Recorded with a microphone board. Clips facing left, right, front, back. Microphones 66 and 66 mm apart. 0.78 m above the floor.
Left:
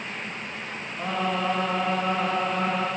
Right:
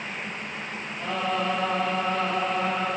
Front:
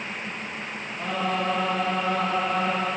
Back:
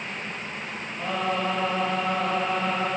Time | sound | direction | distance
1.0 | singing | 100° left | 3.5 m